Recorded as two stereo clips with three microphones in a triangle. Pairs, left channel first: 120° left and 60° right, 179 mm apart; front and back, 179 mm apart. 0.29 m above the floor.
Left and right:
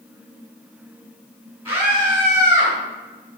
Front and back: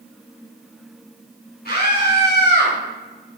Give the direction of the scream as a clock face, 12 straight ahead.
12 o'clock.